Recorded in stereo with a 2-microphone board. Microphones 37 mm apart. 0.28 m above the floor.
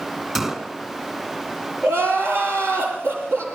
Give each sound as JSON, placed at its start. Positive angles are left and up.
{"t": 0.3, "sound": "a gunshot", "side_deg": -20, "distance_m": 2.5}
{"t": 1.8, "sound": "crying", "side_deg": -80, "distance_m": 6.0}